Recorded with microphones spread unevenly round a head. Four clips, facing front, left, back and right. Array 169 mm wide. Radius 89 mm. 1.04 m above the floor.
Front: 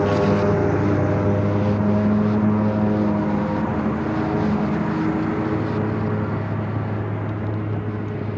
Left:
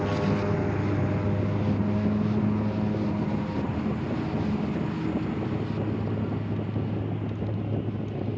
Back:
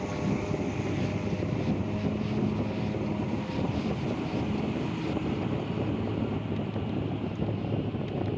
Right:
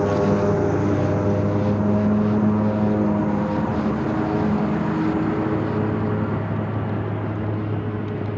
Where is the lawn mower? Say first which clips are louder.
Right 8 dB, front 13 dB; 35° right; by 8.4 s 55° right.